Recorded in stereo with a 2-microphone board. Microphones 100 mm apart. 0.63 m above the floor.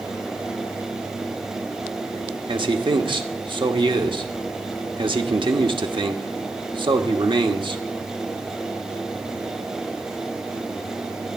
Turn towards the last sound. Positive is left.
turn(degrees=-50)  # may be behind; listen again after turning